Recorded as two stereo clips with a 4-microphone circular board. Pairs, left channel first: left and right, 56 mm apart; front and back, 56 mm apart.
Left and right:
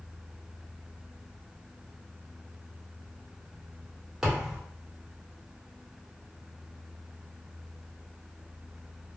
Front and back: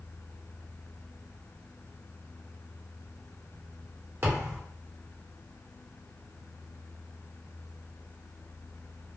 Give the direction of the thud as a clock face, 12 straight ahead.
6 o'clock.